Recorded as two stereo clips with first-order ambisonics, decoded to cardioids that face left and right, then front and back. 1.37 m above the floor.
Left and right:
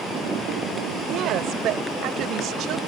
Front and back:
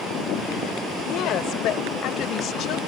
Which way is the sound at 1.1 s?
45° right.